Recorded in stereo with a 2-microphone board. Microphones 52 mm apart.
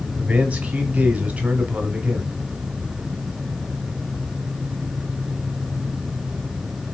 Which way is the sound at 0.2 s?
30° right (ahead or behind).